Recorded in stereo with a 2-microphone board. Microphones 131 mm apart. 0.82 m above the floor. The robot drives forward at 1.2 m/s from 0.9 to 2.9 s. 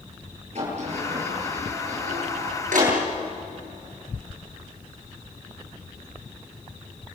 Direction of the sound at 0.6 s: 55° right (ahead or behind).